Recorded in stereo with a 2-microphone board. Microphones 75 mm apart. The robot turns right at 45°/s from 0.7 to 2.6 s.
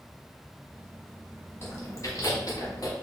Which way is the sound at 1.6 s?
35° left (ahead or behind).